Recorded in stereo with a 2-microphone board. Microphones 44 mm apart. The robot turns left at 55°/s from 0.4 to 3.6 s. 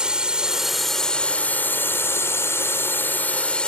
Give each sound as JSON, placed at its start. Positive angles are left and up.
{"t": 0.0, "sound": "a drone", "azimuth_deg": -160}